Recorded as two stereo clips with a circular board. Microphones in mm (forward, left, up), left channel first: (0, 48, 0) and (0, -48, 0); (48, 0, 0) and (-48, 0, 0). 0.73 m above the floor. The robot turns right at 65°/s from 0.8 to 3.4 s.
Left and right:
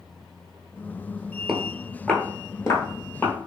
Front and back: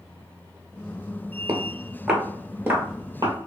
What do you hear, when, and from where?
1.5 s footsteps: 170° right, 0.7 m; by 3.3 s 160° left, 1.2 m